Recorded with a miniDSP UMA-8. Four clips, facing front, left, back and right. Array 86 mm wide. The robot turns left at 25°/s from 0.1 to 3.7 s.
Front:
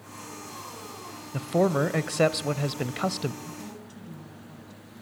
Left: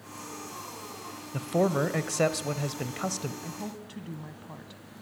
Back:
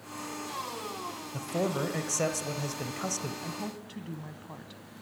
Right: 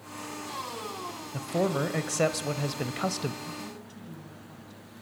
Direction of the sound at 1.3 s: 25° left.